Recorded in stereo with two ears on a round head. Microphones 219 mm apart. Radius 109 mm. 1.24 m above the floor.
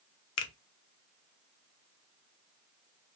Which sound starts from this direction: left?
A finger snap, at 0.4 s.